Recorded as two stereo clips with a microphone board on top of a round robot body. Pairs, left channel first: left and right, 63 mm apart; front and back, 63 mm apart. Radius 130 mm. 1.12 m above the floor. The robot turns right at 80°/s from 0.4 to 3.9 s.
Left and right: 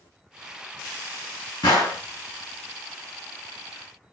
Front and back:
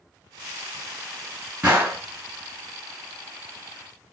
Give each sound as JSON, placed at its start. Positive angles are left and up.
{"t": 1.6, "sound": "a gunshot", "azimuth_deg": 100, "distance_m": 1.6}